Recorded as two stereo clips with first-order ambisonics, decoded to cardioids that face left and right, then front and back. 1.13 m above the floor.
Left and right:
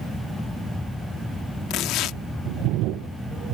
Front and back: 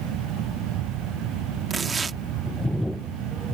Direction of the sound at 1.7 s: 115° left.